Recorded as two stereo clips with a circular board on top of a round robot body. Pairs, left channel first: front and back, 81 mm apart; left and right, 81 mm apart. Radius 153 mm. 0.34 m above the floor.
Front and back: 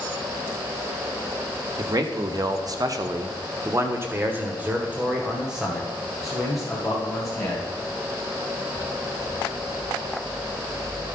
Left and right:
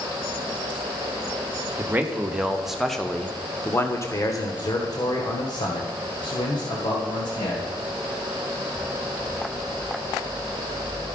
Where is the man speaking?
150° right, 1.8 m; by 7.7 s 90° left, 3.5 m.